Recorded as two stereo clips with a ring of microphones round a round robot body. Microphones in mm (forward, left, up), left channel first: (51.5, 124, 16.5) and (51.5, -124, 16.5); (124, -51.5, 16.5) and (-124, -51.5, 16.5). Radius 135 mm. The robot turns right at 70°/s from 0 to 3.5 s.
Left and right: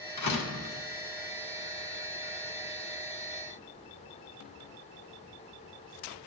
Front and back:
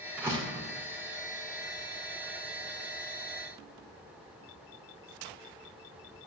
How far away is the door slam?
About 1.7 m.